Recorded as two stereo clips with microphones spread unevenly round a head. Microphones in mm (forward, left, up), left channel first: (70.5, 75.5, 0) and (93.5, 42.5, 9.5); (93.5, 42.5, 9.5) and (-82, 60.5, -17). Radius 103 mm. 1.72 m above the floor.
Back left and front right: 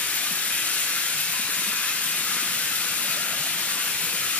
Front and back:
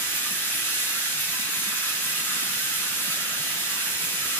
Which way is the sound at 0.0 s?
70° left.